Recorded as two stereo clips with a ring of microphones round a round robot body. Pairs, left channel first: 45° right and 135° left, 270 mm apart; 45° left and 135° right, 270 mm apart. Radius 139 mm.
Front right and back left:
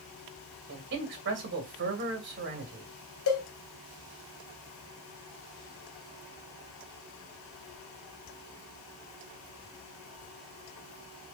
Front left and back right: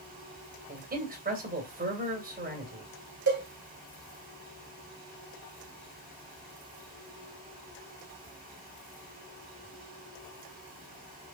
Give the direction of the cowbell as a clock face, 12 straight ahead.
3 o'clock.